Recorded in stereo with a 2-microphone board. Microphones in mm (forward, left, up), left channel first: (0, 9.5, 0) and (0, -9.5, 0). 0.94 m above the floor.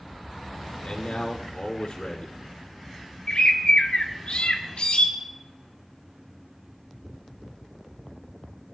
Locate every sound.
0.8 s a man speaking: 75° left (ahead or behind), 2.5 m
3.3 s a bird: 80° left, 1.0 m